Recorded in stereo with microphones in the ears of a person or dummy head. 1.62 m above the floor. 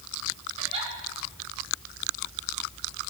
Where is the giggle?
30° right (ahead or behind), 5 m.